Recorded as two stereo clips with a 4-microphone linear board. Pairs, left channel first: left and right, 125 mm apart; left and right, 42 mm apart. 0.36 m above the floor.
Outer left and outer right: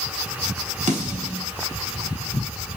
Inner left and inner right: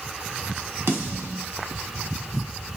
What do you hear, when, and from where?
0.9 s a snare drum: 75° right (ahead or behind), 0.8 m